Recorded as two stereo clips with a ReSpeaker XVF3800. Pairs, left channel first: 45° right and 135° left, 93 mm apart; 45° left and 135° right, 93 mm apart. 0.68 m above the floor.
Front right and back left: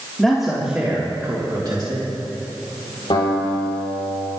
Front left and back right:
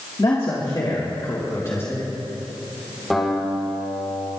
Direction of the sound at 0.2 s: 35° left.